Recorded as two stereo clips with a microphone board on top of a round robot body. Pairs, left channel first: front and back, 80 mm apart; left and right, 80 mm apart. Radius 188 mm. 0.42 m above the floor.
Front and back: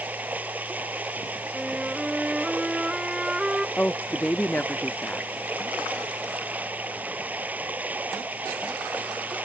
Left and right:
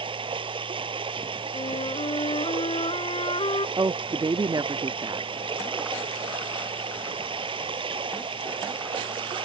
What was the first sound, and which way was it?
Running water, 110° right.